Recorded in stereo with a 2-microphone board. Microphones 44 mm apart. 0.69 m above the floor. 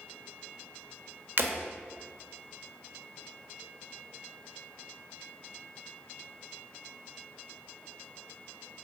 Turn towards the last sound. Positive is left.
turn(degrees=-55)  # may be behind; listen again after turning